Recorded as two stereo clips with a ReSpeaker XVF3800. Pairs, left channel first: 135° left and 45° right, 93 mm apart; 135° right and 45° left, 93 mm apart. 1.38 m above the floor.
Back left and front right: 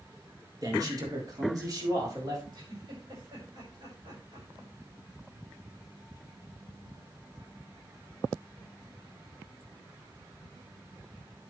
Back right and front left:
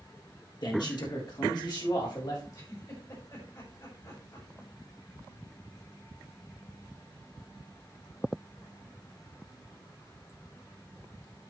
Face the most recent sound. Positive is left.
turn(degrees=-85)